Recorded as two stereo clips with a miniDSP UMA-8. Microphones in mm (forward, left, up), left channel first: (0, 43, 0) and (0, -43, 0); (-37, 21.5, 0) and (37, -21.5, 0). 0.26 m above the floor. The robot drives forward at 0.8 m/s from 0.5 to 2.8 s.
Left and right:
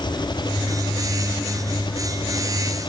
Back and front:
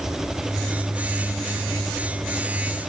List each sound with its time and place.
0.0 s an engine running: 55° left; by 2.9 s 60° left